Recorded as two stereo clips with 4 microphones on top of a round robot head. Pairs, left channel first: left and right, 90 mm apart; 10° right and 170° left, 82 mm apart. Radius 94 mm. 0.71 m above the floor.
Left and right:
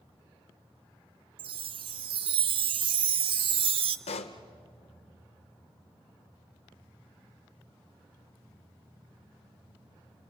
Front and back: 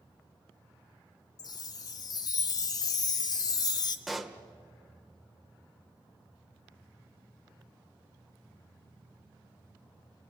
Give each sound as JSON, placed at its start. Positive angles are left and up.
{"t": 1.4, "sound": "a chime", "azimuth_deg": -55, "distance_m": 0.6}
{"t": 4.1, "sound": "a pop", "azimuth_deg": 80, "distance_m": 1.0}